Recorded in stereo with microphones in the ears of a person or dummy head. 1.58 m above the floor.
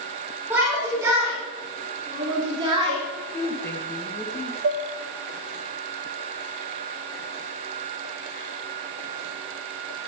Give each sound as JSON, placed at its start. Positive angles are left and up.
{"t": 0.5, "sound": "a shout", "side_deg": -15, "distance_m": 5.5}
{"t": 3.3, "sound": "a woman speaking", "side_deg": 10, "distance_m": 1.8}
{"t": 4.6, "sound": "dishes clattering", "side_deg": -60, "distance_m": 1.5}